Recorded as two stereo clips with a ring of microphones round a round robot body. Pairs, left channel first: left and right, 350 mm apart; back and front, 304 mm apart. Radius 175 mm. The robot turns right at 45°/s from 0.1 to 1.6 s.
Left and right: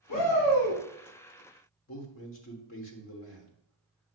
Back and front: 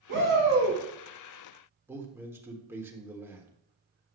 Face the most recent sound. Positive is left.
turn(degrees=75)